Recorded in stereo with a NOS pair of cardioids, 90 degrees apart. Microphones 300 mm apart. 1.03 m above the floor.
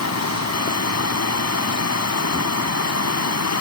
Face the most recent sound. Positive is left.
turn(degrees=60)